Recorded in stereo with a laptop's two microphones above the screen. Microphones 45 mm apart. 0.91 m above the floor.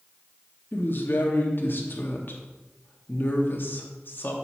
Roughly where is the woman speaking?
Left.